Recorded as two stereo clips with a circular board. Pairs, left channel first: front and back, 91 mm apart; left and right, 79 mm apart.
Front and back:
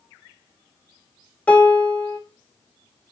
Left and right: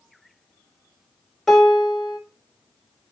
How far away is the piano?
About 0.8 m.